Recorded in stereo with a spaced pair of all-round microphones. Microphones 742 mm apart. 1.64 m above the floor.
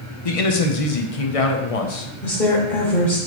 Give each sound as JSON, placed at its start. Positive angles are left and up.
{"t": 0.2, "sound": "a man speaking", "side_deg": 50, "distance_m": 0.8}
{"t": 2.2, "sound": "a woman speaking", "side_deg": 90, "distance_m": 2.0}